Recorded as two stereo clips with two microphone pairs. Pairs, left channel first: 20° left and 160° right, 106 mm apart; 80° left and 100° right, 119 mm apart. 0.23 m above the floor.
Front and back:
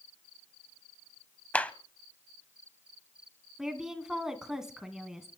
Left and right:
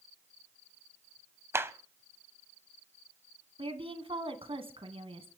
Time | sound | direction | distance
1.5 | a clap | 45° right | 1.0 m
3.6 | a woman speaking | 75° right | 2 m